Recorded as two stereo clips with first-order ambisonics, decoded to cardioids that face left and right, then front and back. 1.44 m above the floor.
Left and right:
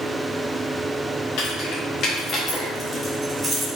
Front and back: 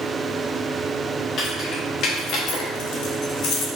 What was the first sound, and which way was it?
Keys jangling, 60° left.